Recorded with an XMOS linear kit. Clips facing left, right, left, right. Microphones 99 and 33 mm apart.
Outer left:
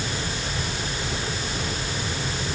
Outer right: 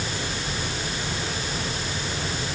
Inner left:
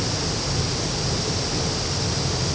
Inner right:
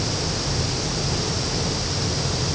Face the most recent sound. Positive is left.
No sound to turn to.